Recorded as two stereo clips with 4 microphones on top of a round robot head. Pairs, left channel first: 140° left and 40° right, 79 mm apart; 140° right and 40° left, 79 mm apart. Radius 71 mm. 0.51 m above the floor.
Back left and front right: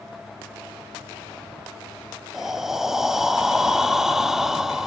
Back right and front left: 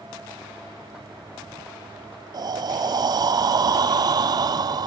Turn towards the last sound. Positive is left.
turn(degrees=45)